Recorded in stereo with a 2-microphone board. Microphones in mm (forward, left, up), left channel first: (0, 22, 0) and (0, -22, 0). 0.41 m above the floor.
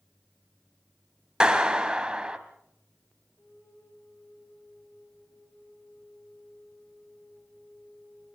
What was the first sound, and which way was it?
A clap, 15° right (ahead or behind).